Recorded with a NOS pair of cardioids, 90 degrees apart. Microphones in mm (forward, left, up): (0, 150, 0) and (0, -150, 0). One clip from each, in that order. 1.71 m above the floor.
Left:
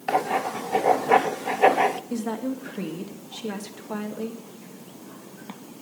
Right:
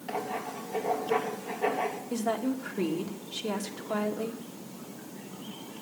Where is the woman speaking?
Straight ahead, 2 m.